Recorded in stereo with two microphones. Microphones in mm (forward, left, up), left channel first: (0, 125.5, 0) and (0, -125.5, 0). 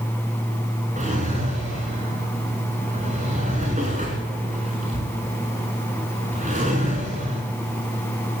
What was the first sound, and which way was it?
A drawer, 30° right (ahead or behind).